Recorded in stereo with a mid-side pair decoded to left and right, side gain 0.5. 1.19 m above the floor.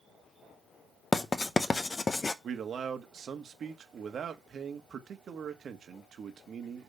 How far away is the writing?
About 0.9 m.